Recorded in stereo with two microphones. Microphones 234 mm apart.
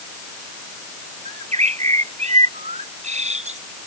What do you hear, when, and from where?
1.2 s a bird: 30° right (ahead or behind)